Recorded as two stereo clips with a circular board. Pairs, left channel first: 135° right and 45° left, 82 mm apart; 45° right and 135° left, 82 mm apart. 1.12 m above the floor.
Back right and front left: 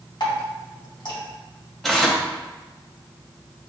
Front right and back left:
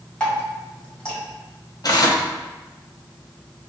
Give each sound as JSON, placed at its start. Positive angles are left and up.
{"t": 0.2, "sound": "dripping", "azimuth_deg": -120, "distance_m": 1.8}
{"t": 1.8, "sound": "tearing paper", "azimuth_deg": -50, "distance_m": 0.7}